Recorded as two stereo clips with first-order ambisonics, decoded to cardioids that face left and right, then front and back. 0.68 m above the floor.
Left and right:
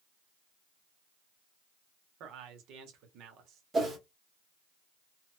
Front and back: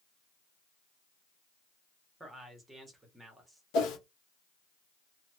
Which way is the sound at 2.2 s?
100° right.